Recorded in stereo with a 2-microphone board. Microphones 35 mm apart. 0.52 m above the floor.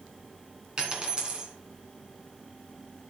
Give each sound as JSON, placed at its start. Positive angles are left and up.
{"t": 0.8, "sound": "a dropped coin", "side_deg": -30, "distance_m": 2.5}